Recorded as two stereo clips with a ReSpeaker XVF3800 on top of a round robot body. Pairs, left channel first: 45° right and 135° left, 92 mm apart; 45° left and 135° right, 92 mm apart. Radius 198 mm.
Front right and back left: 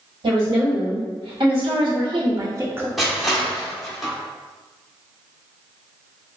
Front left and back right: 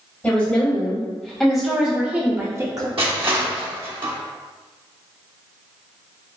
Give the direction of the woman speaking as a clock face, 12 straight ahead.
8 o'clock.